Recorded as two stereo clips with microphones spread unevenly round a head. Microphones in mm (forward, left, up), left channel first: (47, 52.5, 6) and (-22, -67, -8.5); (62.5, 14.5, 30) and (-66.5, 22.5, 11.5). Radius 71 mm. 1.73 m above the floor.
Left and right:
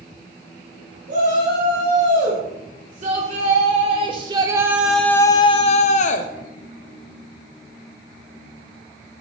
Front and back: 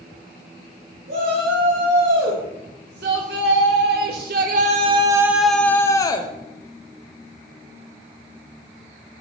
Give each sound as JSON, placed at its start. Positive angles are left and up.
{"t": 1.1, "sound": "a shout", "azimuth_deg": -160, "distance_m": 2.5}